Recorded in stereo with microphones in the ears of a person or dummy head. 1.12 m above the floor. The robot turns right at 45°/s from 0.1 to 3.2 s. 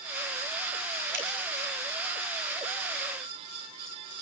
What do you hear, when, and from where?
1.1 s a finger snap: 65° right (ahead or behind), 4.5 m; by 1.3 s 70° right (ahead or behind), 4.5 m